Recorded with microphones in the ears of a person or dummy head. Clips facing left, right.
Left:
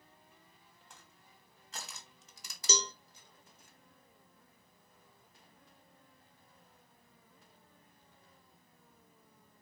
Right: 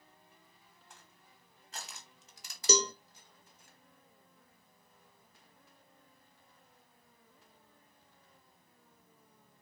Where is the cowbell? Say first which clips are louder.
Right 7 dB; 50° right (ahead or behind), 0.6 m.